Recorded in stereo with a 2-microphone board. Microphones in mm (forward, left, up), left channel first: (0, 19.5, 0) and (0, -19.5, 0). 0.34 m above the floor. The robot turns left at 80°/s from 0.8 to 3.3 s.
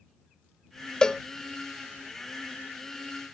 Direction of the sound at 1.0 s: 20° left (ahead or behind).